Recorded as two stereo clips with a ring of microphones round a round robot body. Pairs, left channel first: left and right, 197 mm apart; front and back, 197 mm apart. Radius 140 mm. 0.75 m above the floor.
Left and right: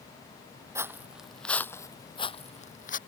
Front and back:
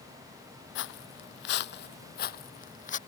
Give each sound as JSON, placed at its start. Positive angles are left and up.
{"t": 0.8, "sound": "footsteps", "azimuth_deg": -15}